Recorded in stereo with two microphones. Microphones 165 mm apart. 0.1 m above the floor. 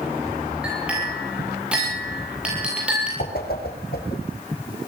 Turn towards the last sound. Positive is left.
turn(degrees=70)  # may be behind; listen again after turning